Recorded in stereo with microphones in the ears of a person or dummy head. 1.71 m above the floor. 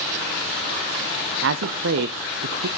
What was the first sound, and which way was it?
A man speaking, 65° right (ahead or behind).